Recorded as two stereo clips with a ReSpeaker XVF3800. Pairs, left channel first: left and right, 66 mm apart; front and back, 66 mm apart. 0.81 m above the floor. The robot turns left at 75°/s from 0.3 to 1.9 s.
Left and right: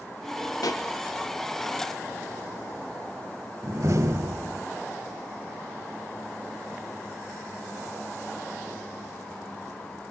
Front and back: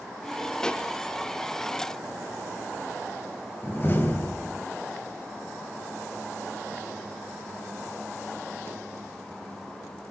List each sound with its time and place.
0.6 s a pop: 80° left, 1.2 m; by 0.8 s 60° left, 1.2 m
3.6 s a door slam: 55° right, 3 m